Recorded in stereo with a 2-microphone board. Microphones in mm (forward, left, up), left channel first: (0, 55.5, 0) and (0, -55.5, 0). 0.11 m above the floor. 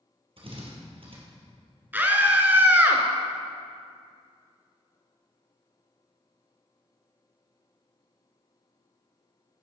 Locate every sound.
0.4 s a drill: 55° right (ahead or behind), 2 m
1.9 s a scream: 15° right (ahead or behind), 1.1 m